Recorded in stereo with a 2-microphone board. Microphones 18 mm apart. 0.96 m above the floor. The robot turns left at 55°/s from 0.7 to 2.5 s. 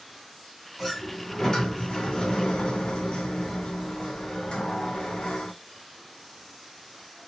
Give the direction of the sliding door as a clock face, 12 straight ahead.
6 o'clock.